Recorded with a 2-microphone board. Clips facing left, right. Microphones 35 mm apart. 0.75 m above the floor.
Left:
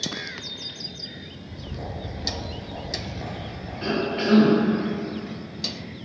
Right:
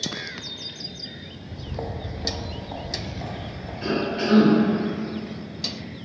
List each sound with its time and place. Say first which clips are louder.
1.4 s footsteps: right 6 dB; 50° right (ahead or behind), 1.0 m; by 3.7 s 25° left (ahead or behind), 0.9 m
3.8 s a cough: even; 25° left (ahead or behind), 0.7 m